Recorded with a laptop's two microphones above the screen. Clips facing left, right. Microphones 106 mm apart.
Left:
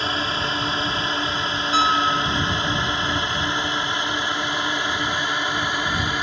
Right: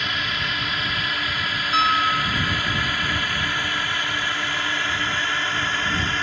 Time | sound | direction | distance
0.0 | a drone | 30° left (ahead or behind) | ?
1.7 | a piano | 5° left (ahead or behind) | ?